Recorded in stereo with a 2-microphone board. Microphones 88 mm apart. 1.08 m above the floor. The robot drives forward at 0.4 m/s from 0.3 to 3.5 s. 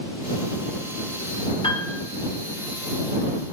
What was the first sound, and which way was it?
A piano, 80° left.